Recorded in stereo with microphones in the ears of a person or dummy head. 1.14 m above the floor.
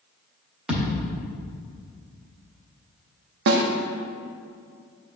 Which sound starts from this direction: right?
A snare drum, at 3.5 s.